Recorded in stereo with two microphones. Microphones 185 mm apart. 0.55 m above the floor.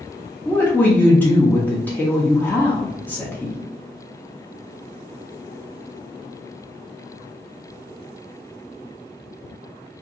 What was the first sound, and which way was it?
A woman speaking, 10° left (ahead or behind).